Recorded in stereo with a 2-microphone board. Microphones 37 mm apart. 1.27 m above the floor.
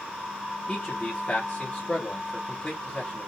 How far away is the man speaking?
About 1.2 m.